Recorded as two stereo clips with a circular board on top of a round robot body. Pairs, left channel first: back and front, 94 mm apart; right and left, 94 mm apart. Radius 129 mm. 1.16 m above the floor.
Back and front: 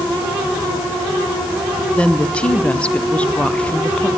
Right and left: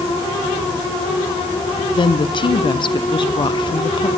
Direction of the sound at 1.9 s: 105° right.